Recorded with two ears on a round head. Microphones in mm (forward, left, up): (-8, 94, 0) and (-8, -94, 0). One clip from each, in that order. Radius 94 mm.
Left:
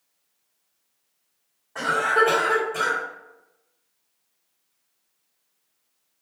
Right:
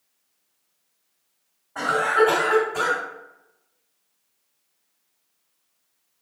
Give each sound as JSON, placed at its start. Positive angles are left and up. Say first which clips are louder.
{"t": 1.8, "sound": "a cough", "louder": "right 1 dB", "side_deg": 65, "distance_m": 1.8}